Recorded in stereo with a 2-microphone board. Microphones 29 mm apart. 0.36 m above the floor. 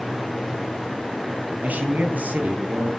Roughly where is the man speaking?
Right.